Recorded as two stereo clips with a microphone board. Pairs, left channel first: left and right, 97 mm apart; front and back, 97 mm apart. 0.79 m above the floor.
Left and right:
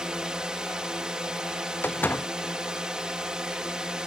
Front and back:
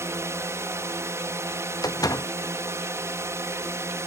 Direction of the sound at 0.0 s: 165° right.